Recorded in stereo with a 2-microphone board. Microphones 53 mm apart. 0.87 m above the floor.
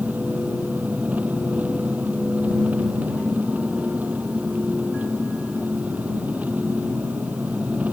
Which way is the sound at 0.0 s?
25° right (ahead or behind).